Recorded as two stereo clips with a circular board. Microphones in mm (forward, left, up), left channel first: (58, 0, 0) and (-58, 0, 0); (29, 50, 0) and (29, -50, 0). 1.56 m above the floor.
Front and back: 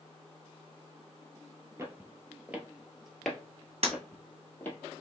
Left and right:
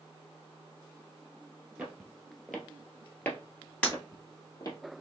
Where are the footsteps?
155° right, 1.6 m; by 4.8 s 60° left, 2 m.